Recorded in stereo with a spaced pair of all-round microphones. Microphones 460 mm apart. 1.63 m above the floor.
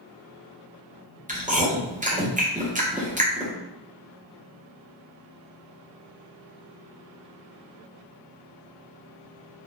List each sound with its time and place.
1.3 s chewing: 15° right (ahead or behind), 0.8 m